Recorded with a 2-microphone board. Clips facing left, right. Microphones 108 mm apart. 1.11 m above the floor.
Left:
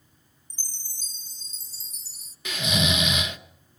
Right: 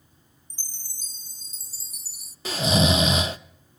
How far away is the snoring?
About 0.8 m.